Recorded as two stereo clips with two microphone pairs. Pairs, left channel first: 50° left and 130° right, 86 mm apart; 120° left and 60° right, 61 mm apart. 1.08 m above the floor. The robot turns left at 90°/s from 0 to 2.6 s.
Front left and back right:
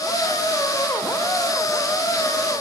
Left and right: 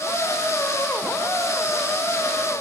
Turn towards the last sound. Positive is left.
No sound to turn to.